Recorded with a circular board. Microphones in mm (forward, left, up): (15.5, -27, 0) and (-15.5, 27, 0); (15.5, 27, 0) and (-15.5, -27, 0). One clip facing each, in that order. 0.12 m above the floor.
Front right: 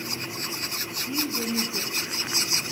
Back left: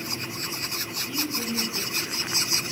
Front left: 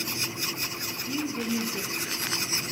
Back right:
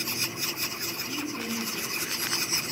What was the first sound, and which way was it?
A woman speaking, 5° right.